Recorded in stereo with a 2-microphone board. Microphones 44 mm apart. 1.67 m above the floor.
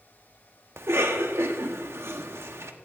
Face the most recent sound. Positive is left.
turn(degrees=-75)  # may be behind; listen again after turning